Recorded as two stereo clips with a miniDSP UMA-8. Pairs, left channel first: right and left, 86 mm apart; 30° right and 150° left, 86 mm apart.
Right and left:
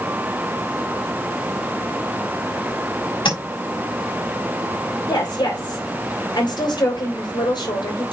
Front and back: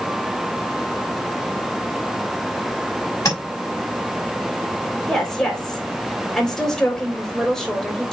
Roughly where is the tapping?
Right.